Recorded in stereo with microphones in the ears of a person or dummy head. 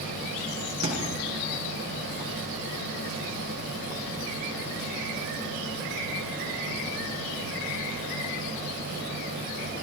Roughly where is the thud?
Right.